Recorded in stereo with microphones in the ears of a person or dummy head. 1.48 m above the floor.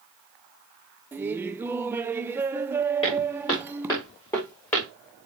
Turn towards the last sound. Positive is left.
turn(degrees=15)  # may be behind; listen again after turning